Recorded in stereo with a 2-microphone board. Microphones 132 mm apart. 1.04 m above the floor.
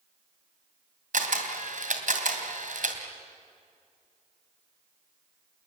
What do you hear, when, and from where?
1.1 s a camera shutter: 75° right (ahead or behind), 3 m